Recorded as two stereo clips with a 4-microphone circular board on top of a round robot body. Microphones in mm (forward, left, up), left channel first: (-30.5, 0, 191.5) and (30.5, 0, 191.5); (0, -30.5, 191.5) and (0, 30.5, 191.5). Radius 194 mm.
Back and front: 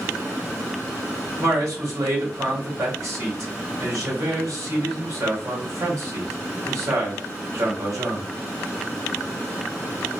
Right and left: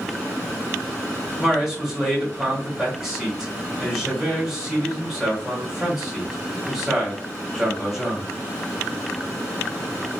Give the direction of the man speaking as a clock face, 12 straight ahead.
12 o'clock.